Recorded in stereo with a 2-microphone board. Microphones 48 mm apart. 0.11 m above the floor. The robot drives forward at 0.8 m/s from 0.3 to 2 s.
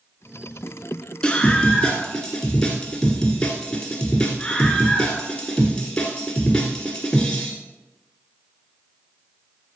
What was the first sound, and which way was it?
A scream, 15° left (ahead or behind).